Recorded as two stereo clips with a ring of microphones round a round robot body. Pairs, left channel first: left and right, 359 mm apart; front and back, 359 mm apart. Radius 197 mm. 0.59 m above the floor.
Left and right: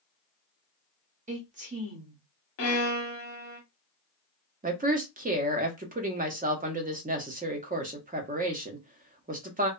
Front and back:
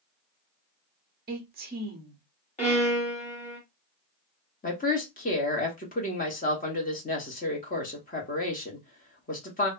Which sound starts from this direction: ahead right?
A woman speaking, at 4.6 s.